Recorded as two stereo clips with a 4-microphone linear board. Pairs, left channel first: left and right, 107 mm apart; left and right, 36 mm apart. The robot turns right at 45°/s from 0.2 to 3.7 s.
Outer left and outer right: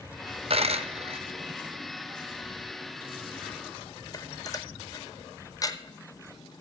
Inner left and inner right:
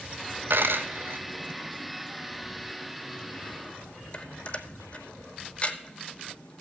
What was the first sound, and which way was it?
A dropped coin, 70° right (ahead or behind).